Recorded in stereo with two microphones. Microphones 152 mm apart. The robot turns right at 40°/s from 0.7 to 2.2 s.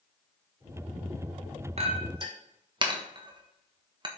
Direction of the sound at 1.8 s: 45° right (ahead or behind).